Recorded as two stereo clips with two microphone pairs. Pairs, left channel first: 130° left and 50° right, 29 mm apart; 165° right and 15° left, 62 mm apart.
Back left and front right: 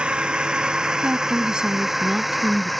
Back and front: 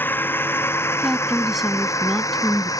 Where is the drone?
110° right; by 2.8 s 145° right.